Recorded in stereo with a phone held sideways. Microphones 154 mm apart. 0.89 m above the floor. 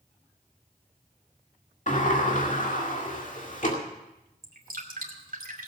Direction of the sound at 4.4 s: 70° right (ahead or behind).